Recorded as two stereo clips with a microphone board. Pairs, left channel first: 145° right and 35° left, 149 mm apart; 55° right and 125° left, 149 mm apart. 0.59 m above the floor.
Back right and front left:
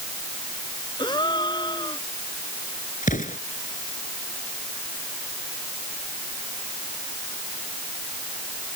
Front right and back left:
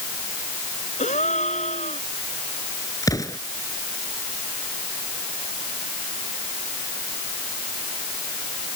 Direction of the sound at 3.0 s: 120° right.